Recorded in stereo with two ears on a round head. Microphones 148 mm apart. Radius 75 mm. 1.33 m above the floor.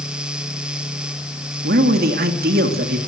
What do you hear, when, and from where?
1.6 s a man speaking: 65° right (ahead or behind), 2.5 m